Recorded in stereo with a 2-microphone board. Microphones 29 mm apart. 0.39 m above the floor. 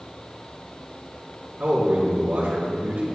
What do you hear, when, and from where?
1.6 s a man speaking: 65° right (ahead or behind), 4 m